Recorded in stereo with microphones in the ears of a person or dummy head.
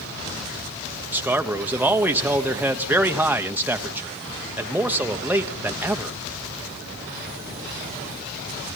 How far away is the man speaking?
About 1.3 m.